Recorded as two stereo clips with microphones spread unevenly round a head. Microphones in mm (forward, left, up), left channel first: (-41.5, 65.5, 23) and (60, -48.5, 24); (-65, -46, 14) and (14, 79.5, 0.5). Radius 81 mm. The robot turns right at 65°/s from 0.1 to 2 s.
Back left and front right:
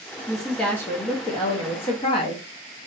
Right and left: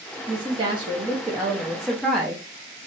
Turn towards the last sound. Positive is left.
turn(degrees=145)